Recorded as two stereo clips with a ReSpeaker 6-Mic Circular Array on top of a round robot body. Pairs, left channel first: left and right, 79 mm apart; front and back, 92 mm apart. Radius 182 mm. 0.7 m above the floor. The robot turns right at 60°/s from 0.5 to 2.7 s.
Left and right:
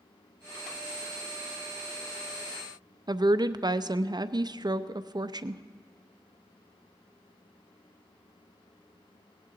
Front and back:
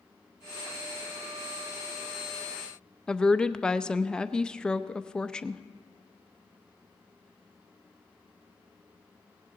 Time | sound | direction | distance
3.1 | a woman speaking | 80° right | 0.7 m